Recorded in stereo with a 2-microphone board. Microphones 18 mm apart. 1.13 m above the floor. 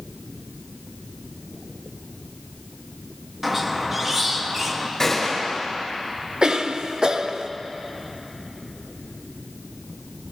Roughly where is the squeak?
Right.